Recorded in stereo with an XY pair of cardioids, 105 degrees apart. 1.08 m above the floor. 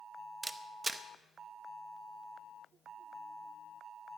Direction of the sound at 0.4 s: 20° right.